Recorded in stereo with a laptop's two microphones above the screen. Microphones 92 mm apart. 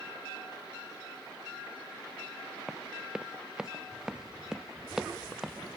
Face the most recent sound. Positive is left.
turn(degrees=0)  # may be behind; listen again after turning